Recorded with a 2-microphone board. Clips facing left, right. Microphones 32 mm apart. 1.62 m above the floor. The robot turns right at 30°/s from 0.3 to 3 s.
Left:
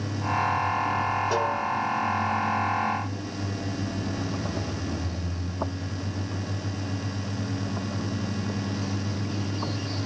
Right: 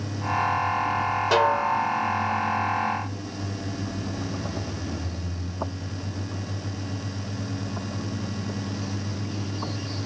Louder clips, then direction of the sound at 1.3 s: Right 5 dB; 70° right (ahead or behind).